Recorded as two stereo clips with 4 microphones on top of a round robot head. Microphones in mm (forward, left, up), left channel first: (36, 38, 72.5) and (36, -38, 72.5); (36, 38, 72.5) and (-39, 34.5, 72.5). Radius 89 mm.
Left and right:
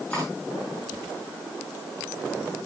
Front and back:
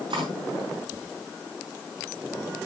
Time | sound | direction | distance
0.1 | cutlery clinking | 165° left | 4.5 m